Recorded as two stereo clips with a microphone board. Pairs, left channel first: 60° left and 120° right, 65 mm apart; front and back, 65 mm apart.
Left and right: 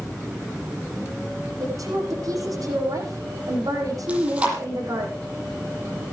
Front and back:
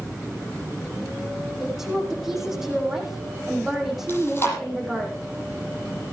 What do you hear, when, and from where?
1.6 s a woman speaking: 95° right, 8.5 m
4.1 s chewing: 50° right, 7.5 m